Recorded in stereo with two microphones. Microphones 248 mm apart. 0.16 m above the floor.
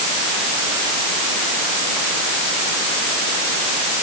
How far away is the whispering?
I don't hear whispering.